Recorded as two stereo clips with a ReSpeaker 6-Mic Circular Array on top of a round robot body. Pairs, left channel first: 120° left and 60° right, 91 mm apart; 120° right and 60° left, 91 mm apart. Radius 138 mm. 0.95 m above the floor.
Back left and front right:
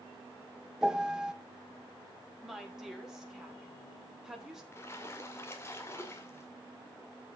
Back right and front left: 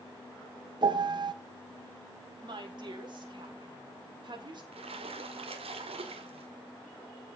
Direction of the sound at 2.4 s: 25° left.